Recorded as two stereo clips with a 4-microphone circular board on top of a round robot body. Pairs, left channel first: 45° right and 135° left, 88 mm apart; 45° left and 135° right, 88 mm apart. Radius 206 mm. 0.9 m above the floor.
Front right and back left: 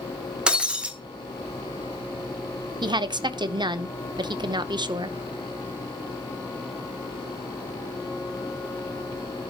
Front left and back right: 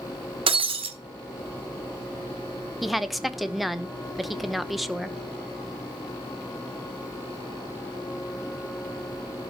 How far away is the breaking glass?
About 1.4 m.